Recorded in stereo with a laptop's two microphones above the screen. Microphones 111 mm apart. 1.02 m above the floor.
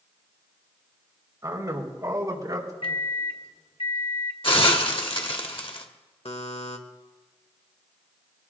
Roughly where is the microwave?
Left.